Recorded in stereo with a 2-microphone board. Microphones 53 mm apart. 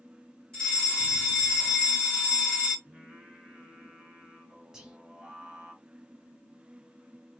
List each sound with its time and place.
0.5 s a fire alarm: 15° left (ahead or behind), 2 m
2.9 s singing: 15° right (ahead or behind), 2.5 m
4.7 s whispering: 10° right (ahead or behind), 1.3 m